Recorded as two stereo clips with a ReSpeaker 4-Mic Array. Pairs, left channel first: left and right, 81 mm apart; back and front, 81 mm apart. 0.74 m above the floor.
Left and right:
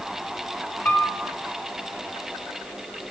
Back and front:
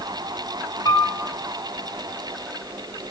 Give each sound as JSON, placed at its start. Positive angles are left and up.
{"t": 0.8, "sound": "a piano", "azimuth_deg": 150, "distance_m": 1.9}